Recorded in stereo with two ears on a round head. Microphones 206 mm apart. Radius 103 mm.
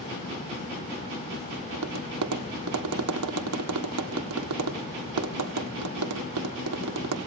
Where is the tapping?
75° right (ahead or behind), 1.7 m.